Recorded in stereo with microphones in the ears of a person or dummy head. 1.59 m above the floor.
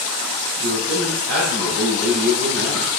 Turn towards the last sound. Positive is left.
turn(degrees=-85)